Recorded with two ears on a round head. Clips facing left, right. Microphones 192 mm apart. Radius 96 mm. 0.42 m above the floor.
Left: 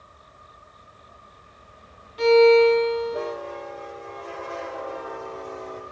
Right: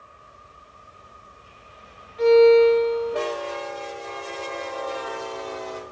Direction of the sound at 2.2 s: 45° left (ahead or behind).